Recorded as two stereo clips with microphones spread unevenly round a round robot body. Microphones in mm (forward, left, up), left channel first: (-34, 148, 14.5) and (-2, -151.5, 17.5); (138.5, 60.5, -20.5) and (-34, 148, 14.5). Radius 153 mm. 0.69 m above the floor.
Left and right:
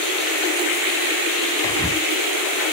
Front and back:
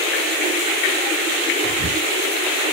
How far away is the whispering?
About 0.7 m.